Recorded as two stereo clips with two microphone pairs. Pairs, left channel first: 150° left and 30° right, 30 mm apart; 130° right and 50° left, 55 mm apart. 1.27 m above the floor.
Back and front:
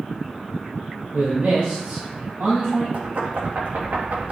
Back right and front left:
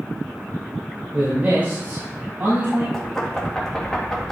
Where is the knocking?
55° right, 1.8 m.